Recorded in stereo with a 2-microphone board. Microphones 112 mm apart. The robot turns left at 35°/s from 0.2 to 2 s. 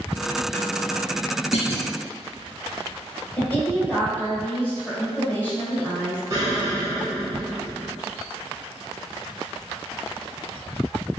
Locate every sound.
1.5 s a clunk: 65° left (ahead or behind), 0.6 m; by 1.9 s 75° left (ahead or behind), 0.6 m
3.4 s a woman speaking: 15° left (ahead or behind), 1.6 m
6.3 s an explosion: 35° right (ahead or behind), 0.9 m